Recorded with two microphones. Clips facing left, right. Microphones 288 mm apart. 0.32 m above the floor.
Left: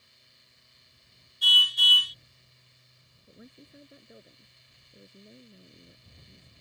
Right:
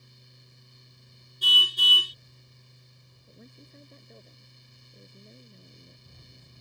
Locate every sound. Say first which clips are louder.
1.4 s a car horn: right 4 dB; 50° right (ahead or behind)
3.3 s a woman speaking: left 1 dB; 5° left (ahead or behind)